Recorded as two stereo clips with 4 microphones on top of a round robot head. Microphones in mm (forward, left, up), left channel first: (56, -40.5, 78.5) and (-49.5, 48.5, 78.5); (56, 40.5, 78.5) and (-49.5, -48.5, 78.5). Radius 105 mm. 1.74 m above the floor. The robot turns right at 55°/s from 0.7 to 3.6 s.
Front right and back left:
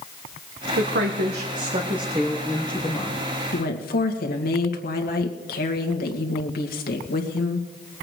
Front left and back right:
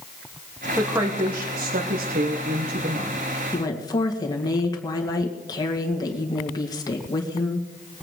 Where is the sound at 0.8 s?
130° left, 1.3 m; by 3.3 s 90° right, 1.3 m.